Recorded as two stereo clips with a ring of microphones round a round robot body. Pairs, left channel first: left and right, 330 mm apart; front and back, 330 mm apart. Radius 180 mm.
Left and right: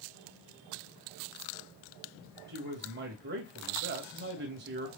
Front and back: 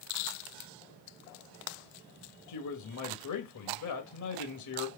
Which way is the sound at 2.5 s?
30° right.